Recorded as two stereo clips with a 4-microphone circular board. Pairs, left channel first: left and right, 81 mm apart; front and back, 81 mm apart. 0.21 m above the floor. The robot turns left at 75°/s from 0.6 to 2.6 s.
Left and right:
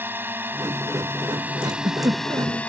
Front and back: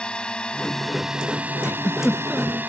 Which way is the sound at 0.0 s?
65° right.